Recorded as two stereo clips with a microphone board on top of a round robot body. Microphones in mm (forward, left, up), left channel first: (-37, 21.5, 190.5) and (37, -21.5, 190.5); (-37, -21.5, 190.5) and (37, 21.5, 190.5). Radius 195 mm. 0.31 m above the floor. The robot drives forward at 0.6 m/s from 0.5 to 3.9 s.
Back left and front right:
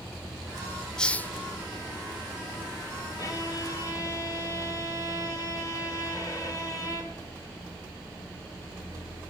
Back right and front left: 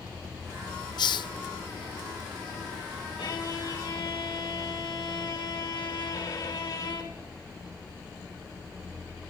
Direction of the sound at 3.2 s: 165° right.